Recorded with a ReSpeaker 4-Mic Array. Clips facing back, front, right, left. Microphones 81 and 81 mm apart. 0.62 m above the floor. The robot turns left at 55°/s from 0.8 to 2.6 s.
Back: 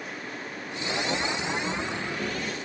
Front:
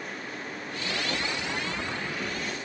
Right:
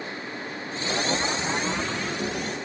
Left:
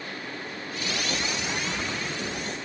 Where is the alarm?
I don't hear an alarm.